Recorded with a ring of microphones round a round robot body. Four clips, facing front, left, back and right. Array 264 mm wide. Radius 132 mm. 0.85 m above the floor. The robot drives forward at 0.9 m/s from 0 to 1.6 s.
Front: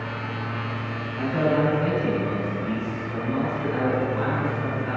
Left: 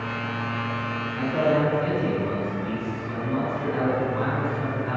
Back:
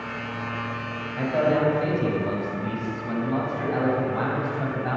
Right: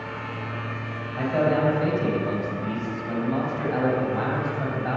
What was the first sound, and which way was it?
A man speaking, 125° right.